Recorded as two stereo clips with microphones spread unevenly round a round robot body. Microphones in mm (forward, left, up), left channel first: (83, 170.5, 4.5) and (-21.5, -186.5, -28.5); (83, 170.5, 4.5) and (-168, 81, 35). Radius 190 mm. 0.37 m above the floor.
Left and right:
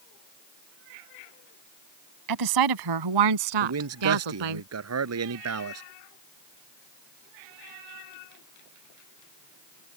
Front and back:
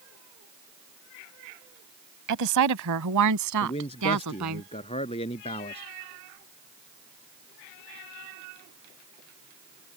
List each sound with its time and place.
2.3 s a woman speaking: 140° right; by 4.6 s 115° right
3.6 s a man speaking: 55° right